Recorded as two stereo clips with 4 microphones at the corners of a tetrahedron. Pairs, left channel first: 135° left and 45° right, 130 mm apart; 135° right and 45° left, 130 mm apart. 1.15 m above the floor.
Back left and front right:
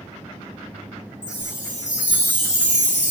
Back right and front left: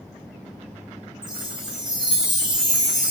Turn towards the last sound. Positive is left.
turn(degrees=130)